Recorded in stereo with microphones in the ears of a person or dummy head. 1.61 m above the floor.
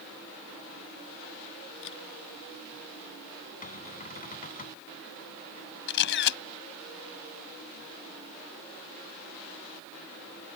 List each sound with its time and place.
1.8 s a camera shutter: 75° left (ahead or behind)
3.6 s a cupboard door: 40° left (ahead or behind)
5.9 s a camera shutter: 70° left (ahead or behind)